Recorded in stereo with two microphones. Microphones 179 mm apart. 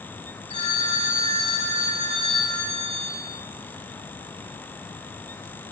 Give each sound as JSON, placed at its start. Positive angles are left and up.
{"t": 0.5, "sound": "a phone ringing", "side_deg": 35, "distance_m": 2.5}